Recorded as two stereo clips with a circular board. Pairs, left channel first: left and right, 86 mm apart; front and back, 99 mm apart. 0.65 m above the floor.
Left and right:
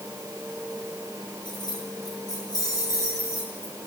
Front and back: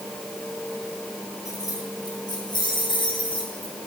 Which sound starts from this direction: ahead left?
Keys jangling, at 1.4 s.